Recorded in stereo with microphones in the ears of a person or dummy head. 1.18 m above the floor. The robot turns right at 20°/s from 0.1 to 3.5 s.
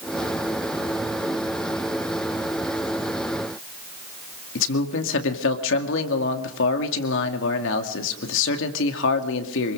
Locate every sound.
4.5 s a man speaking: 70° left (ahead or behind), 2.5 m